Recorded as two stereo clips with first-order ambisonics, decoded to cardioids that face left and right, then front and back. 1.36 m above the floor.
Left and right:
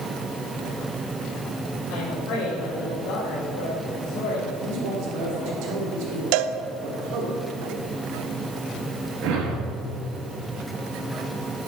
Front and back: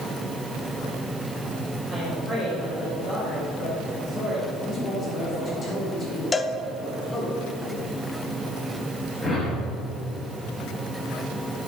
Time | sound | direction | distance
1.9 | a woman speaking | 75° left | 3.5 m
4.6 | a man speaking | 70° right | 3.5 m
6.3 | a cowbell | 75° right | 0.6 m
9.2 | a whoosh | 75° right | 4 m